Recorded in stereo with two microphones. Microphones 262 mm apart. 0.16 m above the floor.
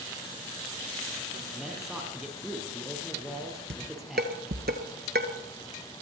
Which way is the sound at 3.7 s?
40° right (ahead or behind).